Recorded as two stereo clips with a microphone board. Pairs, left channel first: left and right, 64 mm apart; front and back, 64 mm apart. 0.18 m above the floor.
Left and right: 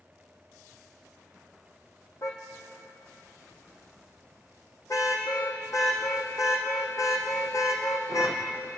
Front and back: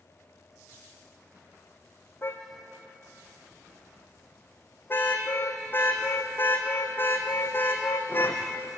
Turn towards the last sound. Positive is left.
turn(degrees=60)